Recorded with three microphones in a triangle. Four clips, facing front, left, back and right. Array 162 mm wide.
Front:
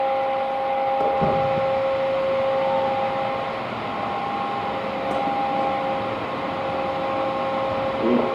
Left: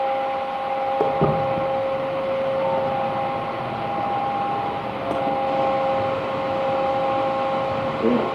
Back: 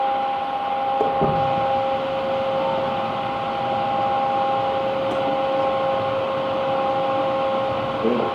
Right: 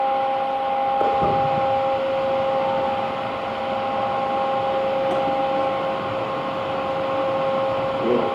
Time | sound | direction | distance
1.0 | footsteps | 110° left | 3.5 m